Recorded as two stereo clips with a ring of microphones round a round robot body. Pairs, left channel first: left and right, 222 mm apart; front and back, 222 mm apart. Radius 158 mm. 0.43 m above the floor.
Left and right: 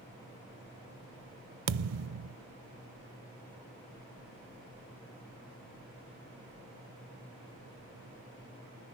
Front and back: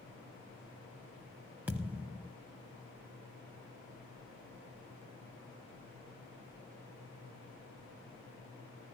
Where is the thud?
95° right, 0.5 m.